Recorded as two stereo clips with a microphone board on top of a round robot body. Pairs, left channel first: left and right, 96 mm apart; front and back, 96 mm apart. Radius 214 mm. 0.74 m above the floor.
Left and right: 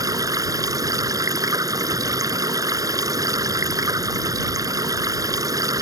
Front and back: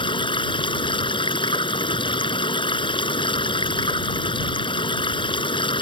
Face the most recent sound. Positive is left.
turn(degrees=-35)